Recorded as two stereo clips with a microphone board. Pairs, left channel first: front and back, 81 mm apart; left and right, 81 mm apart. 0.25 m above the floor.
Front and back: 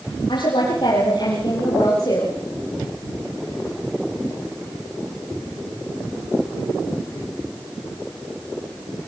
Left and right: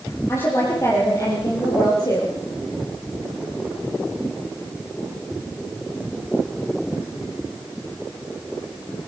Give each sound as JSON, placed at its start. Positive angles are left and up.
{"t": 0.3, "sound": "a woman speaking", "azimuth_deg": 30, "distance_m": 7.5}